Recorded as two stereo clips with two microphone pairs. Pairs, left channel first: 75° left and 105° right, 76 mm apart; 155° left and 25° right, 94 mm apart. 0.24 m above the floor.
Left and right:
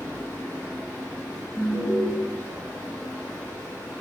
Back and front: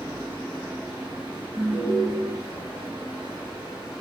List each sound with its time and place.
0.0 s running water: 50° right, 2.0 m
1.6 s an alarm: 100° right, 1.1 m